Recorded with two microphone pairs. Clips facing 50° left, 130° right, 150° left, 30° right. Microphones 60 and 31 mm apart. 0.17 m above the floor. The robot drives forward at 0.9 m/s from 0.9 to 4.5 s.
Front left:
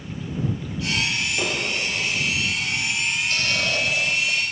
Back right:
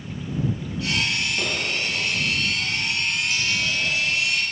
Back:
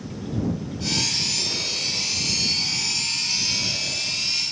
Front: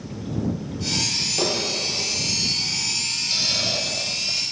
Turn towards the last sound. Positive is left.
turn(degrees=25)